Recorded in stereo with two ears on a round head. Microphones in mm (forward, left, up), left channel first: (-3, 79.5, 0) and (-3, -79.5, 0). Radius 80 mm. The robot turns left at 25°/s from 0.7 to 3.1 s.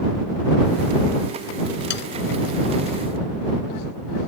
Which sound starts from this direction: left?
Sawing, at 1.9 s.